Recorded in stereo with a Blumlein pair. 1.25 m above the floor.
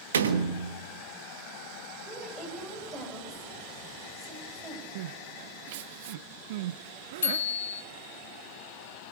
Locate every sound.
0.1 s a door slam: 70° right, 1.5 m
2.0 s a woman speaking: 10° right, 7 m
5.0 s crying: 50° right, 0.6 m
7.2 s a bicycle bell: 65° left, 3.5 m